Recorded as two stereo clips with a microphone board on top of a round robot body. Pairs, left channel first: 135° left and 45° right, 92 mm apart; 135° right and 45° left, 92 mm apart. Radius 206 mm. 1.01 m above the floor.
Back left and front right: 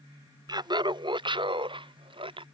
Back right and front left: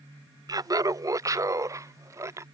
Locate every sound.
0.5 s laughter: straight ahead; by 2.4 s 15° right